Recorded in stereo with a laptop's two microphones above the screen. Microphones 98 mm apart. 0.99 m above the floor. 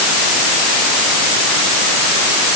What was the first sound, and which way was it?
Only background noise.